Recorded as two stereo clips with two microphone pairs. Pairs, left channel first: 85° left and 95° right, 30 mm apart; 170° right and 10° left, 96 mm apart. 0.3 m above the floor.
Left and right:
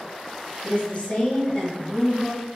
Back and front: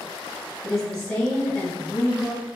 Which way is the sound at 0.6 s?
105° left.